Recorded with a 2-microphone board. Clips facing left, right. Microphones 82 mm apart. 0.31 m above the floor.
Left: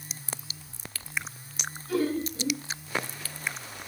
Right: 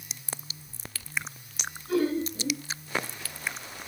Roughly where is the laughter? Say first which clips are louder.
Right 1 dB; right.